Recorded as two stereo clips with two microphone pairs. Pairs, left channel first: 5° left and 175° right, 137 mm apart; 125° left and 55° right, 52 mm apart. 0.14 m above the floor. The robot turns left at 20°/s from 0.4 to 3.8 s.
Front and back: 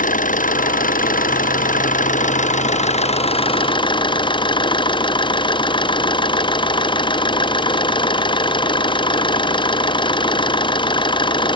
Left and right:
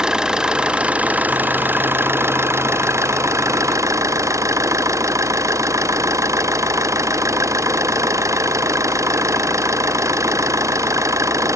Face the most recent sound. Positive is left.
turn(degrees=-50)